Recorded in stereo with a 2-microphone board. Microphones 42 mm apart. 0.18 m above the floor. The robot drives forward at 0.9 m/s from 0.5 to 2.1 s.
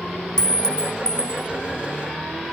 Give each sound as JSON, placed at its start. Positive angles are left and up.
{"t": 0.4, "sound": "a clink", "side_deg": 15}